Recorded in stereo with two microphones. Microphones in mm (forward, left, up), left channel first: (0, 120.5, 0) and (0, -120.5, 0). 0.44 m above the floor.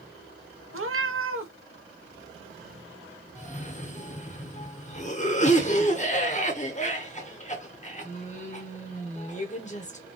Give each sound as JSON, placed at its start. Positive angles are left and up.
{"t": 0.7, "sound": "a cat meowing", "side_deg": -60, "distance_m": 0.7}
{"t": 3.4, "sound": "a cough", "side_deg": 30, "distance_m": 0.9}